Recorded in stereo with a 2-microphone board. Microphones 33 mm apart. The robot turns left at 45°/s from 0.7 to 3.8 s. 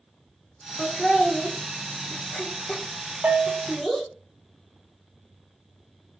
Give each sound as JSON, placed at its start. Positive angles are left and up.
{"t": 0.8, "sound": "laughter", "side_deg": 15, "distance_m": 1.0}
{"t": 3.2, "sound": "a bell", "side_deg": -65, "distance_m": 0.5}